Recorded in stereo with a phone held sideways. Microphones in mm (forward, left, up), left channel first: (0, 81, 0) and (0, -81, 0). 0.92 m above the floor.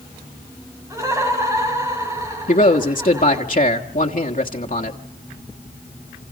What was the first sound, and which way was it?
Laughter, 20° right (ahead or behind).